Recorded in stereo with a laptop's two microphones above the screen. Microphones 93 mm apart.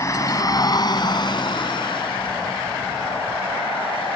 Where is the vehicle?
35° left (ahead or behind); by 4.2 s 75° left (ahead or behind).